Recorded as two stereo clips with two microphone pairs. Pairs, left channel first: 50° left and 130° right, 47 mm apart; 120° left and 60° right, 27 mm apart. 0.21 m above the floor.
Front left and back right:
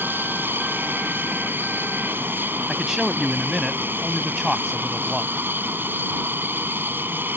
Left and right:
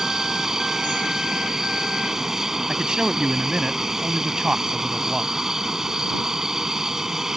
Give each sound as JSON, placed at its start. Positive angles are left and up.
{"t": 0.0, "sound": "an aircraft", "azimuth_deg": -130}
{"t": 2.7, "sound": "a man speaking", "azimuth_deg": -50}